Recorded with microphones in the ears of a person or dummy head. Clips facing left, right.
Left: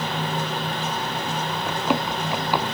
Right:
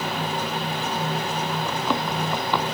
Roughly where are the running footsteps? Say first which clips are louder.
Left 5 dB; centre.